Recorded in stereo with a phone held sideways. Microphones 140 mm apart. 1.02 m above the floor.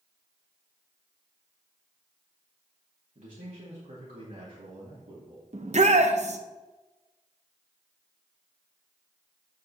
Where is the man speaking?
70° right (ahead or behind), 2 m.